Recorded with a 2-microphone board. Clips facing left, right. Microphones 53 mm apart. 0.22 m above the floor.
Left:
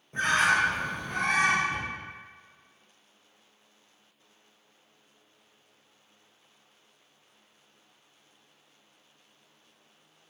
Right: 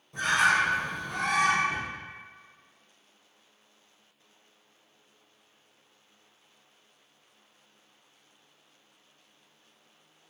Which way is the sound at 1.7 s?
20° right (ahead or behind).